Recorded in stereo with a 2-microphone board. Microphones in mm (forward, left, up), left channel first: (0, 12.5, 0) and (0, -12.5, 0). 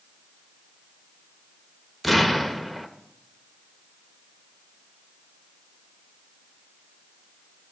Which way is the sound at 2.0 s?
Centre (ahead or behind).